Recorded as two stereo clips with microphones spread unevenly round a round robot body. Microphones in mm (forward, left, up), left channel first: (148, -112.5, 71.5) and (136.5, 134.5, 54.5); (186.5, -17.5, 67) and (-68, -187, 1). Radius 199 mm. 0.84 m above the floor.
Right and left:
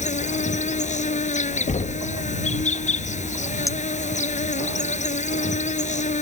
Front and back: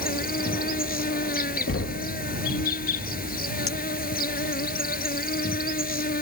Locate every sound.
0.0 s an insect: 25° right
1.7 s knocking: 25° right
3.7 s a clink: 10° right